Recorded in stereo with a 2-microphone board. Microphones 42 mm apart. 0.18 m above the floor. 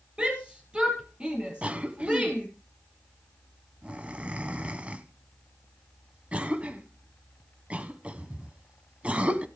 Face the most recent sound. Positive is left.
turn(degrees=-30)  # may be behind; listen again after turning